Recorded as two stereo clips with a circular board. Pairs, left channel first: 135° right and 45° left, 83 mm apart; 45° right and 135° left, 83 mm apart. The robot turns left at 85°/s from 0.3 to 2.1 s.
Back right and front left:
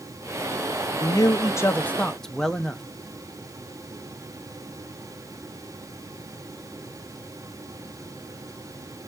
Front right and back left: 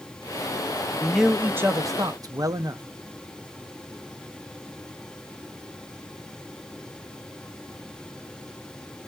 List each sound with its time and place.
1.0 s a man speaking: 125° right, 0.6 m; by 2.8 s 145° left, 0.6 m